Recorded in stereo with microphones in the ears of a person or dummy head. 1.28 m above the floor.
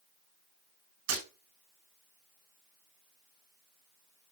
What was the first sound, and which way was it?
Breaking glass, 65° right (ahead or behind).